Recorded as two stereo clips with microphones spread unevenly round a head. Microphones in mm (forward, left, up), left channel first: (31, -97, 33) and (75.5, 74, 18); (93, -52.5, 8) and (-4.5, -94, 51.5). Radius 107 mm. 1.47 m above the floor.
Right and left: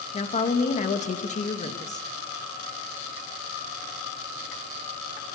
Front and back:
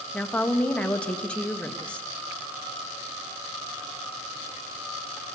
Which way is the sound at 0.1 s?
55° right.